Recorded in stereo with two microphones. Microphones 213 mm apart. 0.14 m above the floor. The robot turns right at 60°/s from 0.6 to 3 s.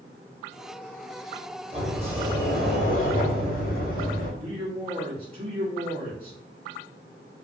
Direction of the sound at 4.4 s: 30° right (ahead or behind).